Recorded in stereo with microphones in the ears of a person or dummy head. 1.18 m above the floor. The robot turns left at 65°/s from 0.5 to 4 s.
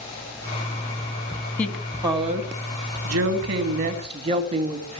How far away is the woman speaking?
About 2.5 m.